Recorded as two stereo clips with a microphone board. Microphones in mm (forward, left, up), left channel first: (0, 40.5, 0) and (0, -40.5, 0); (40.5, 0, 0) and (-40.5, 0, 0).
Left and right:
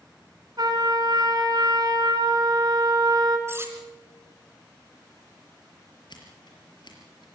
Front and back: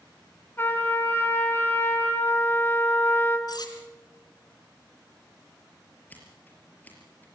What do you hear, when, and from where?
0.6 s a trumpet: 60° right, 3 m
3.5 s cutlery clinking: 30° right, 2.5 m
6.1 s scissors: 70° left, 5 m